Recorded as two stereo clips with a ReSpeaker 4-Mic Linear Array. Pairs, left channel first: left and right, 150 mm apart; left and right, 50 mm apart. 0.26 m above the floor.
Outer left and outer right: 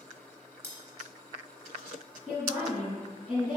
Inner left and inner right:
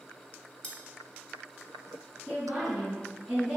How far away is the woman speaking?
About 2.0 m.